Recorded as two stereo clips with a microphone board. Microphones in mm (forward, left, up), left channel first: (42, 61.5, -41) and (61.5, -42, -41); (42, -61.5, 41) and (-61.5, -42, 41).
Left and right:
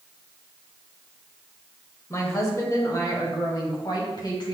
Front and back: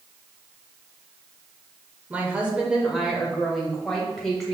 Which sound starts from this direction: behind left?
A woman speaking, at 2.1 s.